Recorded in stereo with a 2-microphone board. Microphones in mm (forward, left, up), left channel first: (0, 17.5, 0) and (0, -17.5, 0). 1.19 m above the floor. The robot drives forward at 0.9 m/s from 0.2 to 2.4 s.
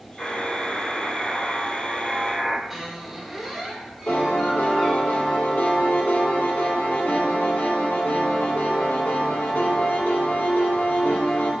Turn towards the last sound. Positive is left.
turn(degrees=85)